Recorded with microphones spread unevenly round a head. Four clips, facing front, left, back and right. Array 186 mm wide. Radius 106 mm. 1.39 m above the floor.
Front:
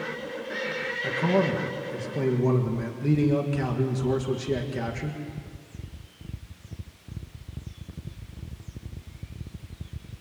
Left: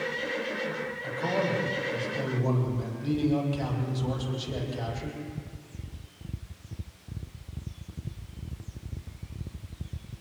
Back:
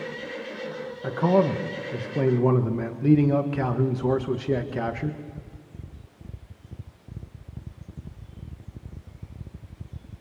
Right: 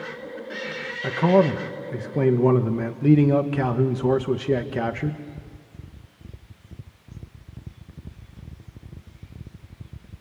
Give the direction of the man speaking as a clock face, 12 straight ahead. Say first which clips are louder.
Right 11 dB, back 3 dB; 3 o'clock.